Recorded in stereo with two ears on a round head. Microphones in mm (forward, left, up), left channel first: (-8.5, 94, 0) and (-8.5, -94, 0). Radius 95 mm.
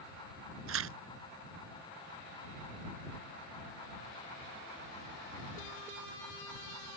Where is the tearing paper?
70° right (ahead or behind).